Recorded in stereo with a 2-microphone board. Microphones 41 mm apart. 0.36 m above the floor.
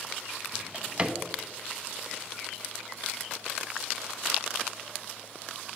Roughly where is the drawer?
Right.